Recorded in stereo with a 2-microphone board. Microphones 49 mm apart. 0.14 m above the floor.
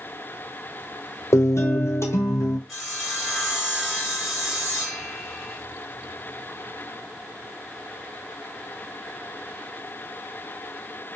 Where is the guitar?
80° left, 0.7 m.